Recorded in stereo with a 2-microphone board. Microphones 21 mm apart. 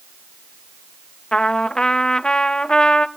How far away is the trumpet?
About 0.5 m.